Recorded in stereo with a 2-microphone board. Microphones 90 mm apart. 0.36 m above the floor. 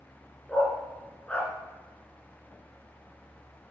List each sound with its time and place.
0.5 s a dog barking: 15° left (ahead or behind), 2 m